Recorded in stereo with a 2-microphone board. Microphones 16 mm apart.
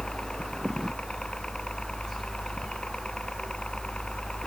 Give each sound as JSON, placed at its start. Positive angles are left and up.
{"t": 0.0, "sound": "a helicopter", "side_deg": 65}